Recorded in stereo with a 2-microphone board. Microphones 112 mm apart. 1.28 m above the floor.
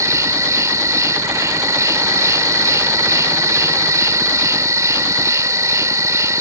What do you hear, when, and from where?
0.0 s an insect: 30° right (ahead or behind)